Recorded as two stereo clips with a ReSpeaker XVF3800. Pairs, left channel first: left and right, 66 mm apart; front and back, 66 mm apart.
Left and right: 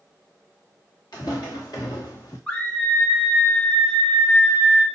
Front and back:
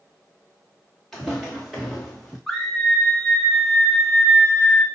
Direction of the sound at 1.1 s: 85° left.